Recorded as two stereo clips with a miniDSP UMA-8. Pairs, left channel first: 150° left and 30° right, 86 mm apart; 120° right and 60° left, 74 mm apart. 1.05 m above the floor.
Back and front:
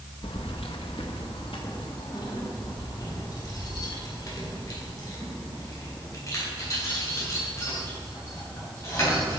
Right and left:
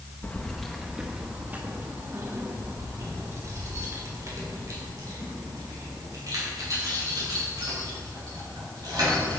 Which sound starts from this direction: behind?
Keys jangling, at 0.2 s.